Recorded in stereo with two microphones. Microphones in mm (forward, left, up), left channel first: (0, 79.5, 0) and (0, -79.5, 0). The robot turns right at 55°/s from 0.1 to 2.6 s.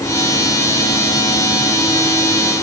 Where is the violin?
I don't hear a violin.